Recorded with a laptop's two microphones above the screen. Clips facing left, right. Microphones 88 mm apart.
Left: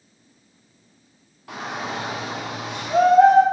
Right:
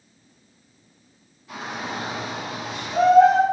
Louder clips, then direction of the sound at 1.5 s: Left 2 dB; 75° left (ahead or behind).